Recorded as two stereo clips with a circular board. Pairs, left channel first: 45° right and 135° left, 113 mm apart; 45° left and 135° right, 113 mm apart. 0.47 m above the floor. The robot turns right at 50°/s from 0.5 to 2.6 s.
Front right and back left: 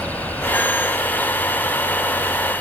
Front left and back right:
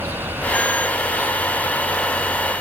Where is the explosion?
No explosion in this recording.